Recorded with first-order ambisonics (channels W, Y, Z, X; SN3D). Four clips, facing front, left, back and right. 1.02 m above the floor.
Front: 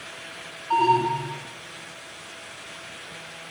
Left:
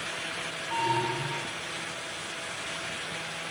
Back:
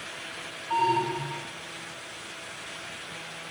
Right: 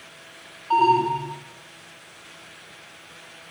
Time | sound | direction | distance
0.7 | an alarm | 60° right | 1.8 m